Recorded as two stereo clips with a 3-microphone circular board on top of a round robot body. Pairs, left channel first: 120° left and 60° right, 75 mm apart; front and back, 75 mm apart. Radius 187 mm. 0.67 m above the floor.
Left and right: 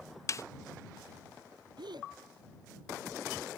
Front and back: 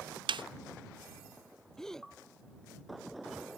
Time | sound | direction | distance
0.3 | a snare drum | 170° left | ?
1.8 | a gasp | 85° right | ?